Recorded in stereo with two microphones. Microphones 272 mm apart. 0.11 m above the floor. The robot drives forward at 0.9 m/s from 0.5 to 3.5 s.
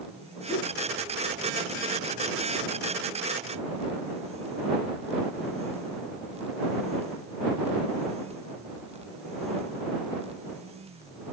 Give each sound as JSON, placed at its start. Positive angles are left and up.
{"t": 0.5, "sound": "a whoosh", "side_deg": -30, "distance_m": 8.5}